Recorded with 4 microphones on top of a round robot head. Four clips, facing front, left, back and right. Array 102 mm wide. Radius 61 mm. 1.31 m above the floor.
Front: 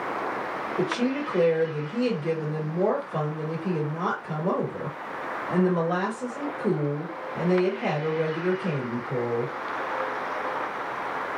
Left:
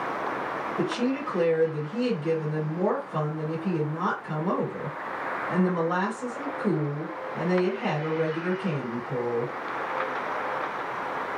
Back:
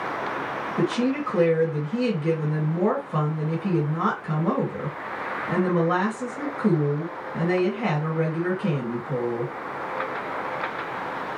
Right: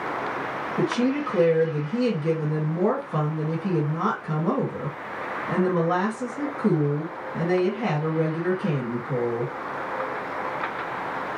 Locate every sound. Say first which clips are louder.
0.8 s a woman speaking: right 5 dB, back 3 dB; 145° right, 1.4 m